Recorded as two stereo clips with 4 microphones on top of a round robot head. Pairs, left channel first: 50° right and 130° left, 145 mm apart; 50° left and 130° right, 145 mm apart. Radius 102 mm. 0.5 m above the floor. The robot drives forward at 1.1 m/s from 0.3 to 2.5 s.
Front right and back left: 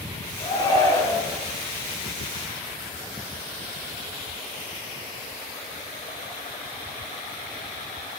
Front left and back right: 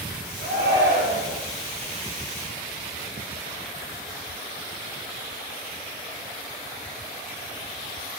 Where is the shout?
110° right, 7.5 m; by 1.4 s 120° right, 8 m.